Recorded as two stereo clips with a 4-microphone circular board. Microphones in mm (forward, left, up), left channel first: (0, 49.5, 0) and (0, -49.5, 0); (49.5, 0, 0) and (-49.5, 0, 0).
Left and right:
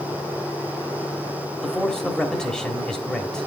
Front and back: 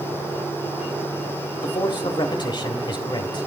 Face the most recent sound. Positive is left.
turn(degrees=10)